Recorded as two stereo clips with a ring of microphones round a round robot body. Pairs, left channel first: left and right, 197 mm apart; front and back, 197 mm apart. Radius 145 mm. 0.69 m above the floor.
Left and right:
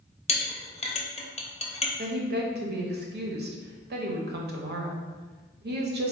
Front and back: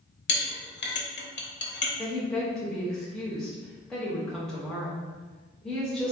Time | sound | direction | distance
0.3 | a clink | 30° left | 0.8 m
2.0 | a woman speaking | 85° right | 0.7 m